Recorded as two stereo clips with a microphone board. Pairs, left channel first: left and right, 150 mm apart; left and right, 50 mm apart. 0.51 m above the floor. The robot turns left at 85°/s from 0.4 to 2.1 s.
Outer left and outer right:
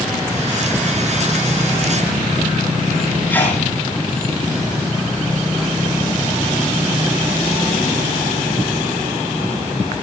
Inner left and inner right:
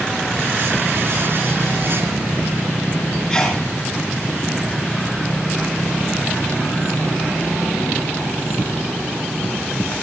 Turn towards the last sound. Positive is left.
turn(degrees=15)  # may be behind; listen again after turning